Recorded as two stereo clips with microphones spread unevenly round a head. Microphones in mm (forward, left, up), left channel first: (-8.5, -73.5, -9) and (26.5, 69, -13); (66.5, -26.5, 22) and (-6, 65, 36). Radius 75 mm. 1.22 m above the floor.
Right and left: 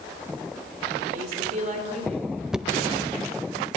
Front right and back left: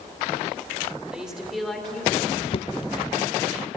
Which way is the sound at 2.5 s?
10° right.